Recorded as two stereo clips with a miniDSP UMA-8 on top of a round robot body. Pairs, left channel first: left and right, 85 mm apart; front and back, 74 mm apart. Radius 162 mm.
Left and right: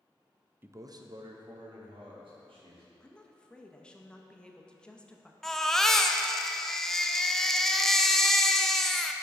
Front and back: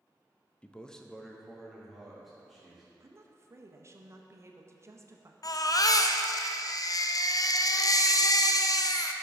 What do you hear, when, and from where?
0.6 s a man speaking: 55° right, 0.7 m; by 2.9 s 90° right, 3 m
3.0 s a woman speaking: 165° left, 1.0 m
5.4 s a baby crying: 5° left, 0.6 m